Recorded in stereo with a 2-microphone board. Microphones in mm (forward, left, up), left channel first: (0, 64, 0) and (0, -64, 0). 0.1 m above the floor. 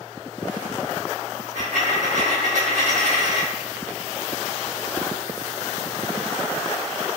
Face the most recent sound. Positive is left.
turn(degrees=-75)  # may be behind; listen again after turning